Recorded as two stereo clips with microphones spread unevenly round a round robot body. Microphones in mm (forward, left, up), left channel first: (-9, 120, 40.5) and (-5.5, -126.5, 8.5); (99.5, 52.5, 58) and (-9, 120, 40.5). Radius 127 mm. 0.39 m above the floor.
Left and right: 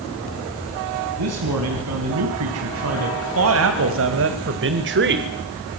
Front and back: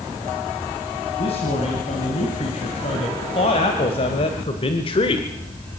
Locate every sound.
1.2 s a man speaking: 85° right, 3.5 m; by 5.3 s 80° right, 1.3 m